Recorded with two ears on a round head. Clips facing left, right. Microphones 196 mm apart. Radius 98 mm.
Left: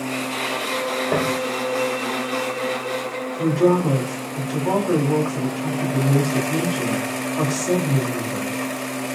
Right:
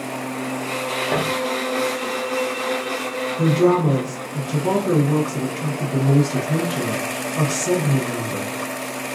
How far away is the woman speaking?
About 0.9 m.